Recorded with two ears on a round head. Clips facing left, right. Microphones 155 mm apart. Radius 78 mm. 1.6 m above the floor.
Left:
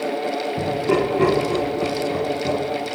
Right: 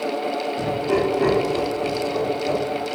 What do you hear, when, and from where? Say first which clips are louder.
0.6 s laughter: left 2 dB; 70° left (ahead or behind), 2 m